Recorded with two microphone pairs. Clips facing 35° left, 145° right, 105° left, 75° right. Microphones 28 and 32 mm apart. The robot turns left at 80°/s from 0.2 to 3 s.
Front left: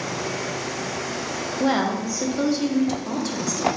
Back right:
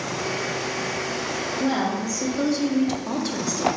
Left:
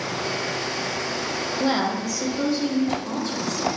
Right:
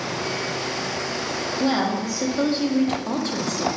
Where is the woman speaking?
35° left, 0.5 m; by 3.7 s 75° right, 0.5 m.